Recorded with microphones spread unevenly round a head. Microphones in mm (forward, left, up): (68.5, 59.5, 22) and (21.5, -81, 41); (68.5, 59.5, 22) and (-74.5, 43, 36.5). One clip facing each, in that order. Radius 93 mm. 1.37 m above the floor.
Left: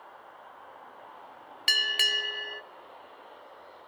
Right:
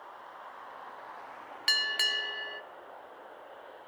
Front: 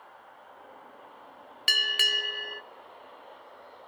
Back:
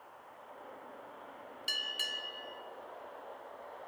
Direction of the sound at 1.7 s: Straight ahead.